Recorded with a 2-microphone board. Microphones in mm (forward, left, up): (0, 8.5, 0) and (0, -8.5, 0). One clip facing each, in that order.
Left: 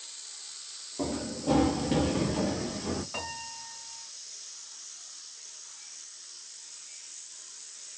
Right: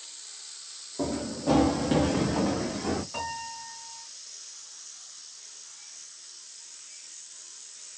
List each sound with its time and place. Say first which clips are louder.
1.0 s running footsteps: right 2 dB; 25° right (ahead or behind), 1.0 m; by 3.0 s 75° right (ahead or behind), 1.4 m
3.1 s a piano: right 3 dB; 5° left (ahead or behind), 1.0 m